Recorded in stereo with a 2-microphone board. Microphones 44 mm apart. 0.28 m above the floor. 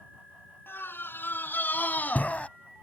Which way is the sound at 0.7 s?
60° left (ahead or behind).